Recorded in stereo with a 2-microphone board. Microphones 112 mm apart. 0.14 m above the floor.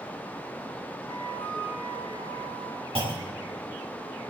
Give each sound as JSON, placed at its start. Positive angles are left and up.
{"t": 1.1, "sound": "a flute", "side_deg": 30, "distance_m": 7.0}
{"t": 3.0, "sound": "a clunk", "side_deg": -50, "distance_m": 4.0}